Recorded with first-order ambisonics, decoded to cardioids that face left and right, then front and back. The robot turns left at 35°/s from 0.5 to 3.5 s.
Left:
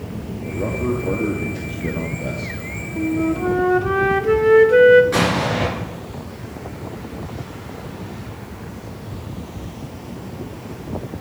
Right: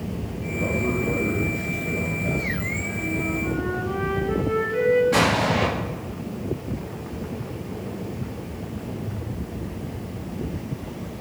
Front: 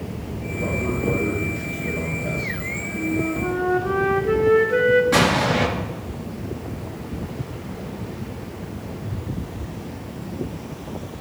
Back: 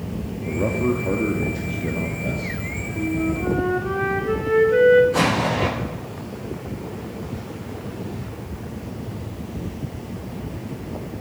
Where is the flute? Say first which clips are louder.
Left 10 dB, back 1 dB; 100° left, 0.8 m; by 5.0 s 85° left, 0.8 m.